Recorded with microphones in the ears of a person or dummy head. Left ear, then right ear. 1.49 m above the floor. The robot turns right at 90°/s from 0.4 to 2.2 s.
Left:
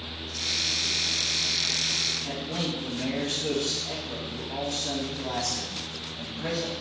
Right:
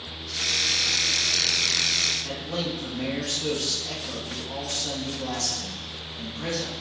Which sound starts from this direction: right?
A man speaking, at 2.2 s.